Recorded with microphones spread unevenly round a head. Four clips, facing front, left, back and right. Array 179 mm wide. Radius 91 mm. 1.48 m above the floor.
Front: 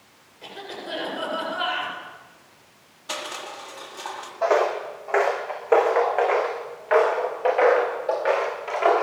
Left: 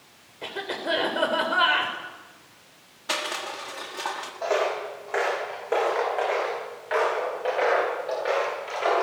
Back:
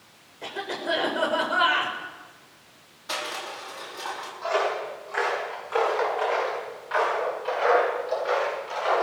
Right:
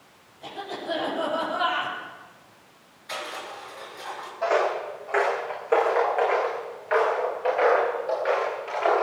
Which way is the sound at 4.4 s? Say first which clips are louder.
Right 2 dB, front 5 dB; 5° left.